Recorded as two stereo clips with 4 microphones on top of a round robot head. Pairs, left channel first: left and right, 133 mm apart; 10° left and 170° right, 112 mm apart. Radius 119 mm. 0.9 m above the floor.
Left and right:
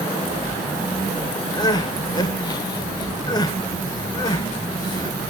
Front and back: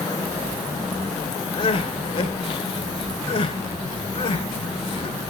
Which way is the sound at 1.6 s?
35° left.